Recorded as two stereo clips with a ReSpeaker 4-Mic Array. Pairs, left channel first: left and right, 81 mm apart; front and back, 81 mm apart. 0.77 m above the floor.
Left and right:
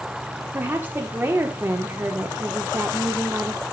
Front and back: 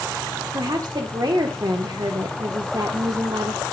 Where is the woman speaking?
150° right, 1.6 m.